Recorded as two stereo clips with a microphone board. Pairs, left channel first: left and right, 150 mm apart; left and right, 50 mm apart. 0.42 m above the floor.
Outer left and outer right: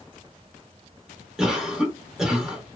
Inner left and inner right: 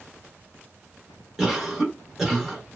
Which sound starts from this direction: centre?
A cough, at 1.4 s.